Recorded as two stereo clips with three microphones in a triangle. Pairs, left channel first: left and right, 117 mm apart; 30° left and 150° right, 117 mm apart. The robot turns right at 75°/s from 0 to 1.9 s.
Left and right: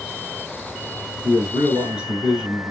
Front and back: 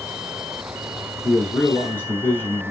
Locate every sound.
1.2 s a man speaking: 65° right, 1.2 m; by 2.7 s 15° right, 1.2 m